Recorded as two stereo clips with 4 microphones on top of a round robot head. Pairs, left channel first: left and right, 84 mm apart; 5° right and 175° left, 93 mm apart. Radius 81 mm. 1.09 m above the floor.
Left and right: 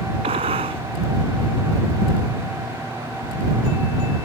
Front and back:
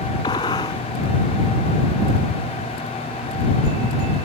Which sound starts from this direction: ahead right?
A gunshot, at 0.2 s.